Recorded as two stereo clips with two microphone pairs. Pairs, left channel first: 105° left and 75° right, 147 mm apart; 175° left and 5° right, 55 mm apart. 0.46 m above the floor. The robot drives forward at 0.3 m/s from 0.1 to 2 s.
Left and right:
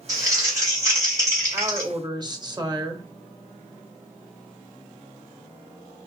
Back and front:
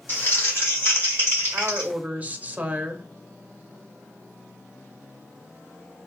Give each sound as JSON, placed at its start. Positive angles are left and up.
{"t": 0.1, "sound": "crumpling", "azimuth_deg": -140, "distance_m": 3.0}
{"t": 1.5, "sound": "a woman speaking", "azimuth_deg": -35, "distance_m": 0.9}